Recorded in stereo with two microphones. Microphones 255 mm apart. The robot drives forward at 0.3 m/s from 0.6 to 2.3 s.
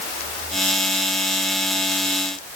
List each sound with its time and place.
Only background noise.